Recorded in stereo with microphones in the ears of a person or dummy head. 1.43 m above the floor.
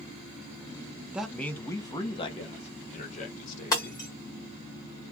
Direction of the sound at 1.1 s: 5° right (ahead or behind).